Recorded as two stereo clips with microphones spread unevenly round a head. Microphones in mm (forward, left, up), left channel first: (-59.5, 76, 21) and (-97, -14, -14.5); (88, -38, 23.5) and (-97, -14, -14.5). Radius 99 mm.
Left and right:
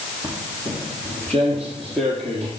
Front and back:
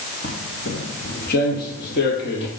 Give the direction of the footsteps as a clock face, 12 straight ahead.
12 o'clock.